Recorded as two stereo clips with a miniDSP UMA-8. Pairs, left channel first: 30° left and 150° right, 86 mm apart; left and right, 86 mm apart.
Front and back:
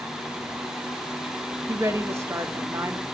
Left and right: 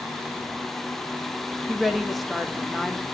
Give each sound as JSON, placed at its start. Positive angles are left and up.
{"t": 1.7, "sound": "a woman speaking", "azimuth_deg": 180, "distance_m": 0.9}